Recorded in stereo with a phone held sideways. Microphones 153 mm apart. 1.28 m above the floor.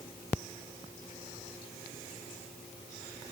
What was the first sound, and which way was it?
Only background noise.